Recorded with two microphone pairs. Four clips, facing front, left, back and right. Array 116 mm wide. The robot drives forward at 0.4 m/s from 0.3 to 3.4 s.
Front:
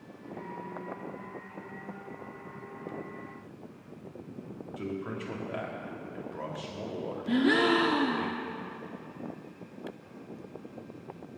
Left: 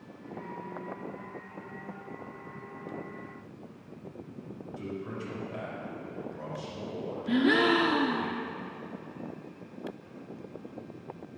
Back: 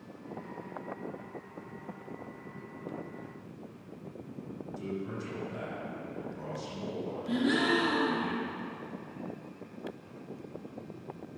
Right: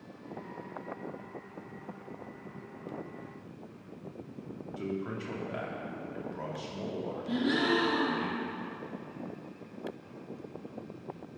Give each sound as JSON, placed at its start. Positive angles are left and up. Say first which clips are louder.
{"t": 4.8, "sound": "a man speaking", "louder": "right 2 dB, front 2 dB", "azimuth_deg": -40, "distance_m": 3.0}
{"t": 7.3, "sound": "a gasp", "louder": "left 5 dB, front 4 dB", "azimuth_deg": 55, "distance_m": 1.0}